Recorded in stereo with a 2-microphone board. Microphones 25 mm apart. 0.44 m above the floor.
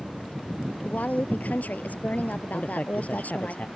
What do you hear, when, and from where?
0.8 s a woman speaking: 75° left (ahead or behind)
2.5 s a man speaking: 55° left (ahead or behind)